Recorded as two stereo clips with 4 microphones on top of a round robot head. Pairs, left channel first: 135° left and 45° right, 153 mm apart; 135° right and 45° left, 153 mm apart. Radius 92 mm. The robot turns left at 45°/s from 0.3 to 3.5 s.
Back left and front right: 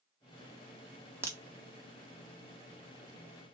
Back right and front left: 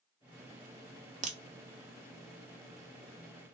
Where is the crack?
25° left, 0.8 m; by 1.4 s 20° left, 0.8 m.